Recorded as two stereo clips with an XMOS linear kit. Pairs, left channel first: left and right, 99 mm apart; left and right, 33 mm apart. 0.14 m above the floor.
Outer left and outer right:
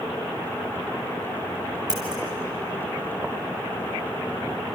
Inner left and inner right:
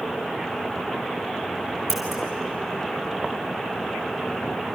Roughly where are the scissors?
Centre.